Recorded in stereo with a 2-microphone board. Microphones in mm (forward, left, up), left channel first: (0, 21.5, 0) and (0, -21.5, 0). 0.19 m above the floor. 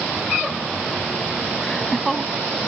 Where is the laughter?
5° left (ahead or behind).